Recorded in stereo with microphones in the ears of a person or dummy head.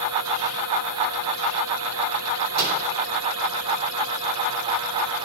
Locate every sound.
2.6 s a microwave: 60° right (ahead or behind), 2.5 m